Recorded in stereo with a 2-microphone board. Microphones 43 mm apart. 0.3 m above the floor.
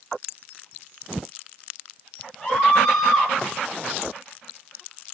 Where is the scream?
15° left (ahead or behind), 7.5 m.